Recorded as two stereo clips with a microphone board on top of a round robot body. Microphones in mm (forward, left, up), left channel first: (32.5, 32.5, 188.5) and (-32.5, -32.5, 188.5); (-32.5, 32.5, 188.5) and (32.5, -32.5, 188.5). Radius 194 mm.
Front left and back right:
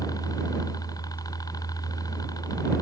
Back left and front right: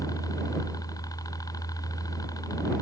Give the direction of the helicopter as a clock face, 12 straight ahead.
9 o'clock.